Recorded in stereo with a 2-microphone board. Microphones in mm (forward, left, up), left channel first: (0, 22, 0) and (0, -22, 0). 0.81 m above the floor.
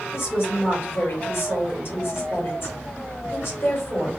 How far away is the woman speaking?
About 3 m.